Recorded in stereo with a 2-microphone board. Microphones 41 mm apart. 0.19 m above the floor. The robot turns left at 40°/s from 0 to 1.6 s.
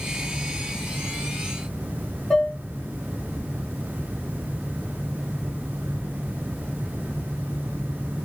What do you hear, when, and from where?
2.3 s dishes clattering: 15° left (ahead or behind), 1.1 m